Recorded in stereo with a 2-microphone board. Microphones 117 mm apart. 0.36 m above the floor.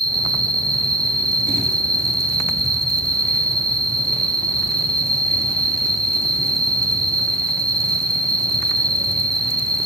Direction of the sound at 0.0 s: 60° left (ahead or behind).